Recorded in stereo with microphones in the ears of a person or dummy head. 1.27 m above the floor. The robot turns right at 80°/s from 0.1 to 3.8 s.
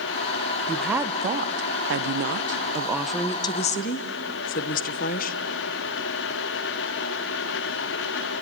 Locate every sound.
0.7 s a woman speaking: 165° left, 0.9 m; by 5.4 s 55° left, 0.9 m